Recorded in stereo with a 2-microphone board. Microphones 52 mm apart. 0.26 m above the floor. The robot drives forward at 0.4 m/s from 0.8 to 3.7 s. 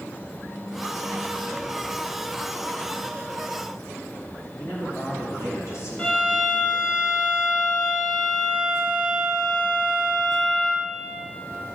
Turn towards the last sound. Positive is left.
turn(degrees=20)  # may be behind; listen again after turning